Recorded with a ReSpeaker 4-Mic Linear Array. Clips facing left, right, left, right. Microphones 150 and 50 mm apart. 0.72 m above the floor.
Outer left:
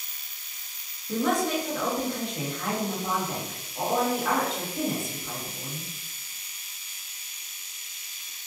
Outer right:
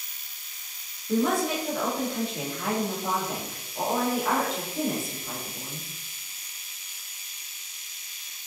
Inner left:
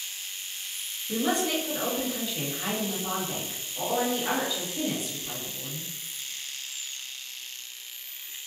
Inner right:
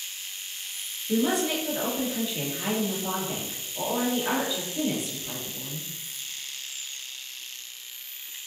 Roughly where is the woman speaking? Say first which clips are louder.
Outer right 1 dB, inner right 2 dB; centre.